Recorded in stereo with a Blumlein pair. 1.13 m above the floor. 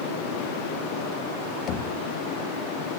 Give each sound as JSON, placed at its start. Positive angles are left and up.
{"t": 1.7, "sound": "knocking", "azimuth_deg": 30, "distance_m": 0.8}